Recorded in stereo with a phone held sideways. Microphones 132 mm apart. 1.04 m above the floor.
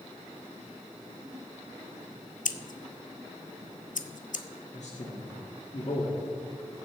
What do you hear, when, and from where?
2.5 s scissors: 75° left (ahead or behind), 0.6 m
4.7 s a man speaking: 60° left (ahead or behind), 2.5 m